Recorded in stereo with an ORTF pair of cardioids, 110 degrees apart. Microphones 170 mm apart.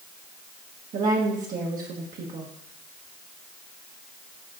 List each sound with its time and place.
0.9 s a woman speaking: 55° right, 1.4 m